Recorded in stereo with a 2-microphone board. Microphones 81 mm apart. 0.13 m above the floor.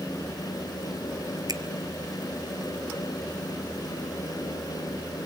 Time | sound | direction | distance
1.5 | a finger snap | 55° right (ahead or behind) | 1.9 m